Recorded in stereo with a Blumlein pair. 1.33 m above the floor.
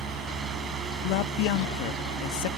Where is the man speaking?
45° left.